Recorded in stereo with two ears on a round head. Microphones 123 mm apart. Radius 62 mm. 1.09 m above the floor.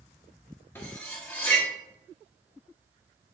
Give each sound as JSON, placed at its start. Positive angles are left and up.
{"t": 0.8, "sound": "cutlery clinking", "side_deg": 15, "distance_m": 1.0}